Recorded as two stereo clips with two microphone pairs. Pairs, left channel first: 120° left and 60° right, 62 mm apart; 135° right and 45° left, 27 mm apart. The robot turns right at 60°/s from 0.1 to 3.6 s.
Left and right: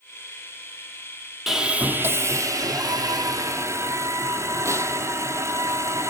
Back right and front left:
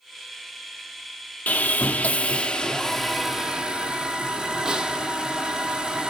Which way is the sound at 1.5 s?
150° right.